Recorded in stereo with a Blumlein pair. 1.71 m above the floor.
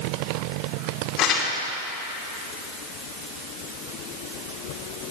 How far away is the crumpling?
About 2.5 m.